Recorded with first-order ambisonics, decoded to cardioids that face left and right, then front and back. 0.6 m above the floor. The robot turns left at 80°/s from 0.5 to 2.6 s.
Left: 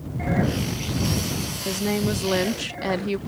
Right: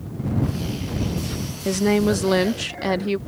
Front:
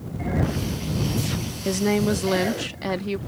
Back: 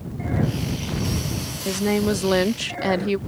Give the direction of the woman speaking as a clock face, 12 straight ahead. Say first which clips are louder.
Right 7 dB, even; 3 o'clock.